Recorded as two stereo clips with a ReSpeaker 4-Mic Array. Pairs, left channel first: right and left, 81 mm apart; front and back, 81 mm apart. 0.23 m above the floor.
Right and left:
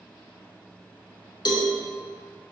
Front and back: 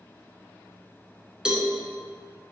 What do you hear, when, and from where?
1.4 s a cowbell: 100° right, 0.8 m